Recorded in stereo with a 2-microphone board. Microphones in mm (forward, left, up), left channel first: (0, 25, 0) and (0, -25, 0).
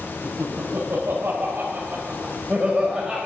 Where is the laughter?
65° right (ahead or behind), 3 m; by 3.2 s 5° right (ahead or behind), 2 m.